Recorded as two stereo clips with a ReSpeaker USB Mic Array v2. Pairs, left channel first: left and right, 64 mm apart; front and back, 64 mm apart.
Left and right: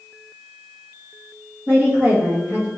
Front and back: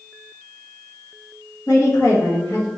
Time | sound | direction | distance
1.7 | a woman speaking | 30° right | 1.7 m